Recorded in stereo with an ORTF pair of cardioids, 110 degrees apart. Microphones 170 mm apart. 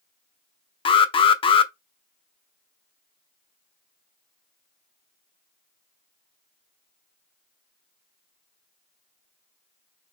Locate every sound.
0.8 s an alarm: 30° left, 0.6 m